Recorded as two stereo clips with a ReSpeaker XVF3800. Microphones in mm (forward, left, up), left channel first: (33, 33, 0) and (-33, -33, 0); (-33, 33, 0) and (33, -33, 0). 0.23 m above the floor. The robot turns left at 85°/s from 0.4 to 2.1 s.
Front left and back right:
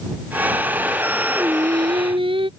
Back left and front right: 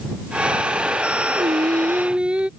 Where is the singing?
60° right; by 2.5 s 125° right.